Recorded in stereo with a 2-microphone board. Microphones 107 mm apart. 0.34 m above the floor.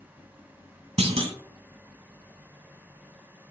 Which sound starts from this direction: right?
A clunk, at 1.0 s.